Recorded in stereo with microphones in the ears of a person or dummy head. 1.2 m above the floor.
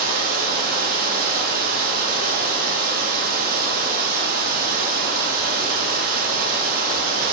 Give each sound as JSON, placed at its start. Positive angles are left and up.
{"t": 0.0, "sound": "running water", "side_deg": -55, "distance_m": 1.1}